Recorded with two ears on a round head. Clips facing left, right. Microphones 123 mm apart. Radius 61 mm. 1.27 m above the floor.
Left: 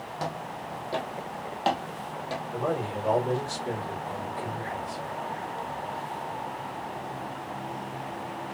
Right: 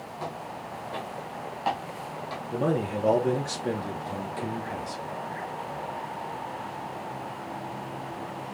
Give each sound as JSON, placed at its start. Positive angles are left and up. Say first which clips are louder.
{"t": 0.2, "sound": "footsteps", "louder": "left 2 dB", "side_deg": 50, "distance_m": 1.9}
{"t": 2.5, "sound": "a man speaking", "louder": "right 4 dB", "side_deg": -75, "distance_m": 1.2}